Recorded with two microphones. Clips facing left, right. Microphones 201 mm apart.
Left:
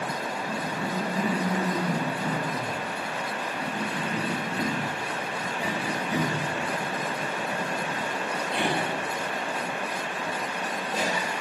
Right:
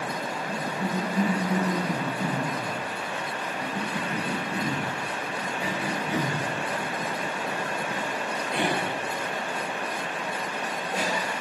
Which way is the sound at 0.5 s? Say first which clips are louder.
Right 2 dB; 10° right (ahead or behind).